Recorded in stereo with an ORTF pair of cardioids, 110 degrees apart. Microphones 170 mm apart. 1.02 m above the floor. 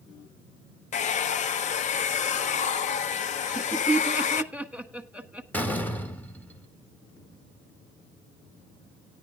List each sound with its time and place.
0.9 s a hair dryer: 45° left, 0.7 m
3.4 s laughter: 10° right, 1.4 m
5.5 s a door slam: 10° left, 2.0 m